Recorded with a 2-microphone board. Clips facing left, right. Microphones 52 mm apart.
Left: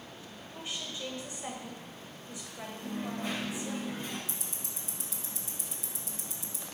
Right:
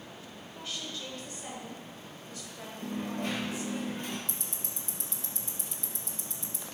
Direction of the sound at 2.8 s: 65° right (ahead or behind).